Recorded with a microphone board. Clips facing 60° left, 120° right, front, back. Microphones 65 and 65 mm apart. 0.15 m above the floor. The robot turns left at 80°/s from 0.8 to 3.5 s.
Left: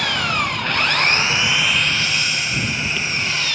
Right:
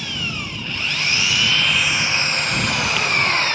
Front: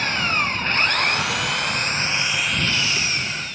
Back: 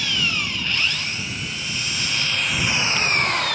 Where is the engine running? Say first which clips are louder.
Left 8 dB, front 3 dB; 45° left; by 3.5 s 170° right.